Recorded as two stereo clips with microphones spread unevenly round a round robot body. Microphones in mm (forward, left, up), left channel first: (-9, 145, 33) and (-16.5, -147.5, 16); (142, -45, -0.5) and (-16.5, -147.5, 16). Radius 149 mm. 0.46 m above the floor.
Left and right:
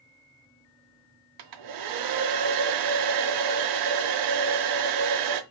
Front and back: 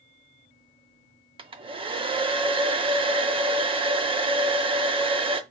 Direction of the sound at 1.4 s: 80° right.